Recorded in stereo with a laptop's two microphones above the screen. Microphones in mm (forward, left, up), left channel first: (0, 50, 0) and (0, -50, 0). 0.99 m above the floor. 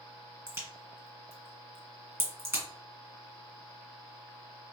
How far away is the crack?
About 1.4 m.